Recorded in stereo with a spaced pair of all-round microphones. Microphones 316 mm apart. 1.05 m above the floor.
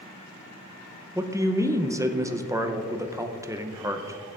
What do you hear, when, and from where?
1.1 s a man speaking: 10° right (ahead or behind), 0.6 m